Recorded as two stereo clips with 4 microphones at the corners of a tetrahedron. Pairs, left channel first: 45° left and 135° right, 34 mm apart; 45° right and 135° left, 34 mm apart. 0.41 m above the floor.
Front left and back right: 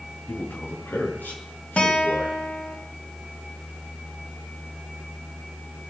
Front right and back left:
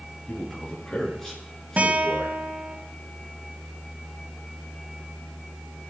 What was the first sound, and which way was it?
A man speaking, 25° left.